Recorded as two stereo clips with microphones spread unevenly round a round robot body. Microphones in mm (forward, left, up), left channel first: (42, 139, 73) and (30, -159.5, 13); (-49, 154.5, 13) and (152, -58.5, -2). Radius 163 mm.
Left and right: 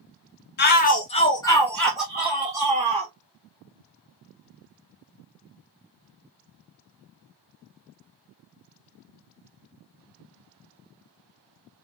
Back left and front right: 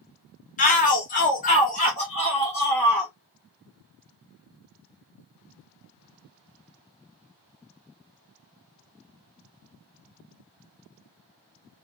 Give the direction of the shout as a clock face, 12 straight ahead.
8 o'clock.